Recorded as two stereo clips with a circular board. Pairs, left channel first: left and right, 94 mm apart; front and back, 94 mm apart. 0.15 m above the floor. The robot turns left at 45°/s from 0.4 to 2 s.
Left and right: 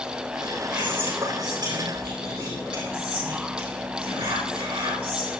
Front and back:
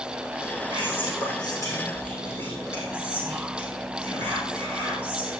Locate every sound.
0.7 s whispering: straight ahead, 5 m; by 5.3 s 60° right, 5 m